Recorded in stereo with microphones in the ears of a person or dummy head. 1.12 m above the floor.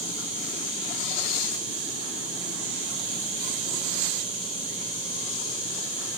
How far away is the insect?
About 3.5 m.